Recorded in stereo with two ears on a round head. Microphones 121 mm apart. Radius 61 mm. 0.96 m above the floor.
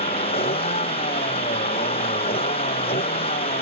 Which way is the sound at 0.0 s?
45° left (ahead or behind).